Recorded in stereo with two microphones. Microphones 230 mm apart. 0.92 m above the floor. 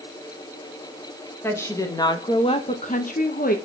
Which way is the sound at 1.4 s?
10° left (ahead or behind).